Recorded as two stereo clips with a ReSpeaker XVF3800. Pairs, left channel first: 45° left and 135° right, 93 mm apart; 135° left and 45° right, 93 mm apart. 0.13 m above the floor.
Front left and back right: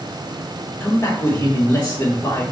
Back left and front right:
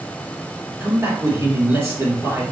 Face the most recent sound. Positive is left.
turn(degrees=0)